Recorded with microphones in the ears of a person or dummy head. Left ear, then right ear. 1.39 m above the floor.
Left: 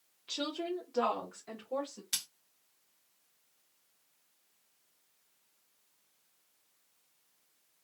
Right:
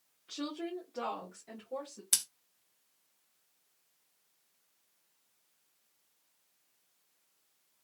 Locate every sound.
0.3 s a woman speaking: 60° left (ahead or behind), 0.9 m; by 2.0 s 40° left (ahead or behind), 1.8 m
2.1 s scissors: 25° right (ahead or behind), 0.5 m